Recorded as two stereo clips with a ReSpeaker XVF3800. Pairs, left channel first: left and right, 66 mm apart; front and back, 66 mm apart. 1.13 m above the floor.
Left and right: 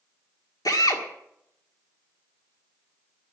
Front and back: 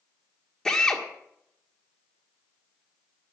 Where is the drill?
80° left, 1.8 m.